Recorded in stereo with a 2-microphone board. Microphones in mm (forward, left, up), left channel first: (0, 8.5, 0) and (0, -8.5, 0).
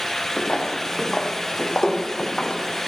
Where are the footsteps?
90° left, 2 m; by 2.6 s 35° left (ahead or behind), 2 m.